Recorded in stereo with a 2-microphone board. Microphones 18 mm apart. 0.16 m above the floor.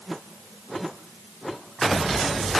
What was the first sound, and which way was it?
Only background noise.